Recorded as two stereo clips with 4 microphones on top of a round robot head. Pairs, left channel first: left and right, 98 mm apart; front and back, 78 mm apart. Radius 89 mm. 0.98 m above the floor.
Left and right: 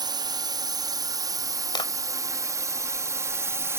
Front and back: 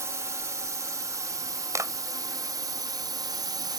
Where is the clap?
130° left.